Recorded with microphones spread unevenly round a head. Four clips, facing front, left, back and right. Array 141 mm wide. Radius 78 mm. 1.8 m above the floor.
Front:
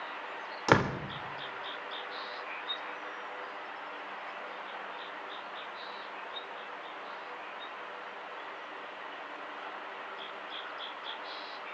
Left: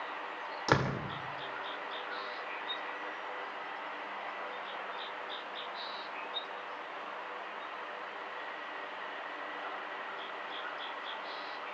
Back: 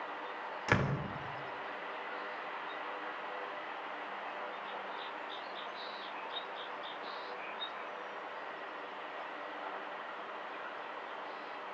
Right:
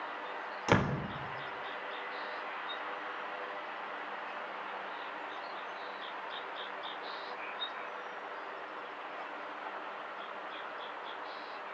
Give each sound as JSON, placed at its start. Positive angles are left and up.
{"t": 0.7, "sound": "a door slam", "azimuth_deg": -5, "distance_m": 4.0}